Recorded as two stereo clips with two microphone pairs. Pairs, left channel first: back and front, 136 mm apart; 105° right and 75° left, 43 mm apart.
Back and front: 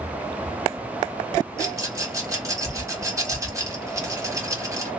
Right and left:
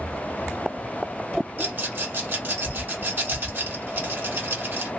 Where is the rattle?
60° left, 1.3 m.